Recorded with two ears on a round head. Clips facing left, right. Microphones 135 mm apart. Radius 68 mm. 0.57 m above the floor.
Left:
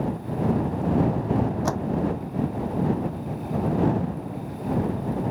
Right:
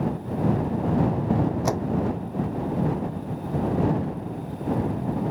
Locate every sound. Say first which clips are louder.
1.6 s a door slam: right 1 dB; 15° right (ahead or behind)